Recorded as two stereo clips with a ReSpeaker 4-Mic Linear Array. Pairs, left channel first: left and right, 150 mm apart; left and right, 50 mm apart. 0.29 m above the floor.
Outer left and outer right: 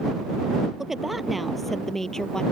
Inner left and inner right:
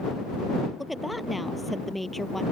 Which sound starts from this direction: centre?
A woman speaking, at 0.8 s.